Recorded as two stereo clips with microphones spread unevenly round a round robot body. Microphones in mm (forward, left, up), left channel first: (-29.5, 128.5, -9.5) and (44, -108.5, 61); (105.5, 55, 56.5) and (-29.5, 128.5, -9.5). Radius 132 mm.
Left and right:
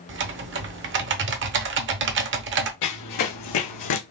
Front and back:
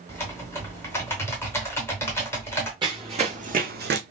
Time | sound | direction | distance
0.1 | typing on a keyboard | 120° right | 0.7 m
2.8 | running footsteps | 85° left | 1.6 m